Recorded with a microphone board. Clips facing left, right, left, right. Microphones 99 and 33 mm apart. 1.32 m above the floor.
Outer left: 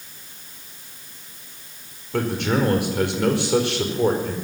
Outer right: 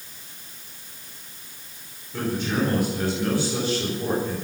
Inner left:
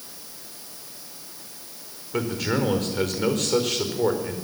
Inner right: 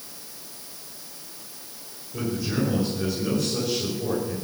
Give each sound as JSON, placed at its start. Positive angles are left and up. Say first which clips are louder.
{"t": 2.1, "sound": "a man speaking", "louder": "outer left 3 dB, inner left 2 dB", "side_deg": 70, "distance_m": 5.0}